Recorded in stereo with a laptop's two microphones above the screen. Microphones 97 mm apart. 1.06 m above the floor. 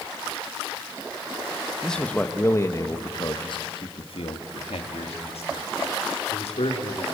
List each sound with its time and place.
1.8 s a man speaking: 5° left (ahead or behind), 1.2 m; by 7.0 s 80° left, 3.5 m